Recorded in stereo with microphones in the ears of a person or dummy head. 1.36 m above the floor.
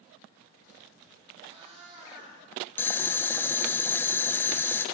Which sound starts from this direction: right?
A cat meowing, at 1.4 s.